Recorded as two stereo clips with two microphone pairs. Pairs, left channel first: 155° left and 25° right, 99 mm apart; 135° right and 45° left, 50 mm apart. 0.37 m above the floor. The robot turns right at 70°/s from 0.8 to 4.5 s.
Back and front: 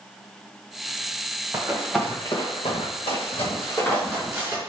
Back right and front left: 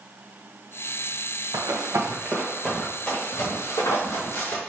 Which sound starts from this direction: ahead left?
Running footsteps, at 1.5 s.